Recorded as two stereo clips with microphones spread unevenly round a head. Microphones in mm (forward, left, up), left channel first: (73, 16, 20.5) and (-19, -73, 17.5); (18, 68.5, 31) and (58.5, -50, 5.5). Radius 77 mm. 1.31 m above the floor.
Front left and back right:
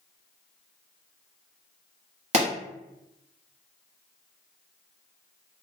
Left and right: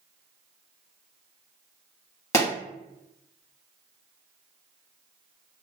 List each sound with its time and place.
2.3 s a pop: 175° left, 1.0 m